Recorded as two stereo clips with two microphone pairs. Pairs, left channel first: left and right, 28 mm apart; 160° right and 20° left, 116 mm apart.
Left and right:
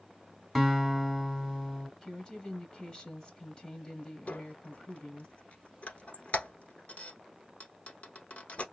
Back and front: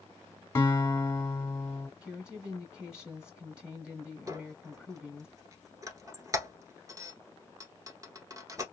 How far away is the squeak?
About 1.2 m.